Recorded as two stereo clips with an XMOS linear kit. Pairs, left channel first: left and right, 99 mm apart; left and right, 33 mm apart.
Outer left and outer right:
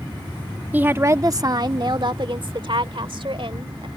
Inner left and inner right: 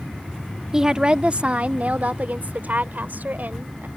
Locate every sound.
0.7 s a woman speaking: 15° right (ahead or behind); by 3.9 s 70° right (ahead or behind)